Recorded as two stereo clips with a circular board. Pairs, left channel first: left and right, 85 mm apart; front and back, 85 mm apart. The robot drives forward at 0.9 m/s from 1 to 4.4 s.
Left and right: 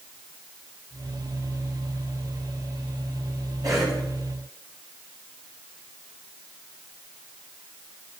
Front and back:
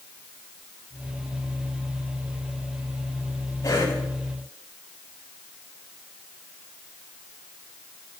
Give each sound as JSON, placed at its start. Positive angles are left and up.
{"t": 3.6, "sound": "a cough", "azimuth_deg": -45, "distance_m": 8.0}